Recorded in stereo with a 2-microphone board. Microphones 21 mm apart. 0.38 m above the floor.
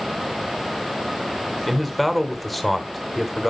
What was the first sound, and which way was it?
A man speaking, 5° left (ahead or behind).